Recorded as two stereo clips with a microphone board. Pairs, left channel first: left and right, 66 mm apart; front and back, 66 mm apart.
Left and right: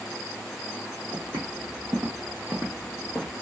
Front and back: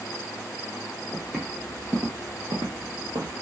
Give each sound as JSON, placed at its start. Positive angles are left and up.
{"t": 1.1, "sound": "footsteps", "azimuth_deg": -95, "distance_m": 1.3}